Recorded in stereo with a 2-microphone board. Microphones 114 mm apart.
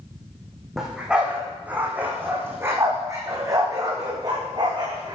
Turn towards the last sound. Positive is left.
turn(degrees=-40)  # may be behind; listen again after turning